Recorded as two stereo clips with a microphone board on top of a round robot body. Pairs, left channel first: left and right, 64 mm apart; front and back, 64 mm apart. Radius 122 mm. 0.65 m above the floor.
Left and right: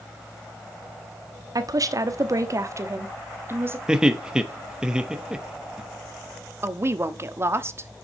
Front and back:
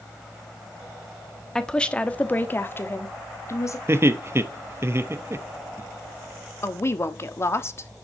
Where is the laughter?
160° right, 1.0 m.